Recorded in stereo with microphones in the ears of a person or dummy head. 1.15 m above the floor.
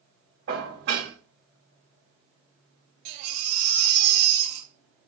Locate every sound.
0.5 s dishes clattering: 70° right (ahead or behind), 2.5 m
3.0 s a baby crying: 35° right (ahead or behind), 3 m